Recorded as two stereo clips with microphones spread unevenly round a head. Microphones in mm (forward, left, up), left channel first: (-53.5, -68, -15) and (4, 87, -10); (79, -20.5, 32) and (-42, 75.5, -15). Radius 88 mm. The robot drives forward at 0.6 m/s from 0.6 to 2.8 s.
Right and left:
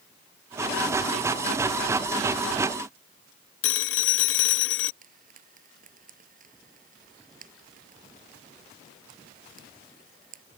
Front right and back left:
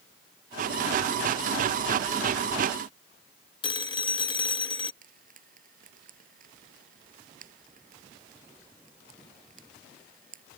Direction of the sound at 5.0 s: 110° left.